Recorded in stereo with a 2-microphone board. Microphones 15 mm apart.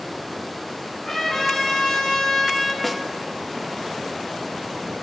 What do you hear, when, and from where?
1.0 s a trumpet: 40° left (ahead or behind), 2.5 m
2.8 s a snare drum: centre (ahead or behind), 0.6 m